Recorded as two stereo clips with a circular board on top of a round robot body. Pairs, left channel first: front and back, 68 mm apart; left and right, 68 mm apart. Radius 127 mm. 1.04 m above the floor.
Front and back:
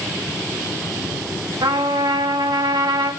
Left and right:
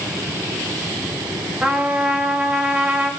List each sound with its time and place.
1.6 s a trumpet: 165° right, 1.9 m